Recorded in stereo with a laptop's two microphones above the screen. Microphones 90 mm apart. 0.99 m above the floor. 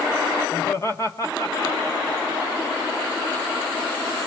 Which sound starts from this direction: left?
Laughter, at 0.5 s.